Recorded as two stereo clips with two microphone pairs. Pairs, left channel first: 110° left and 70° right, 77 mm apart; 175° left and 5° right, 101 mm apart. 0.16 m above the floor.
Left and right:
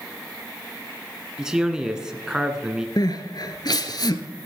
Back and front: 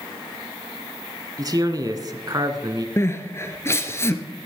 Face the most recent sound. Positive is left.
turn(degrees=115)